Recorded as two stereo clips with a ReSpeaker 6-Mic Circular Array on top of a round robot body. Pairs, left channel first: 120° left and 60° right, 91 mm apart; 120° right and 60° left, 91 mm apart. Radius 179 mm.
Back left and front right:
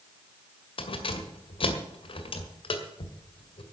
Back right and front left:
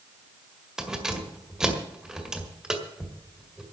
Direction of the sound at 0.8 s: 145° left.